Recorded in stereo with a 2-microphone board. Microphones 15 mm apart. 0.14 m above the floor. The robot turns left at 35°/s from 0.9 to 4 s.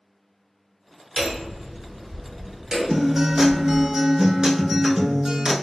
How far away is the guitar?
About 0.6 m.